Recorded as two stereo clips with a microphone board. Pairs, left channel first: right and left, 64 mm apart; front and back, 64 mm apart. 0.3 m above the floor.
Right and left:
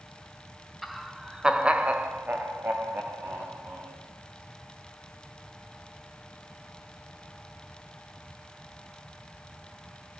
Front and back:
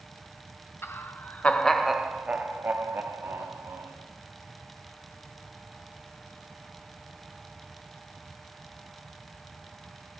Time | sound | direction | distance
0.8 | laughter | straight ahead | 1.7 m